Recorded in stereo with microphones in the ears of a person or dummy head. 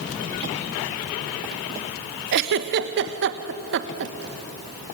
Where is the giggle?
55° right (ahead or behind), 1.2 m.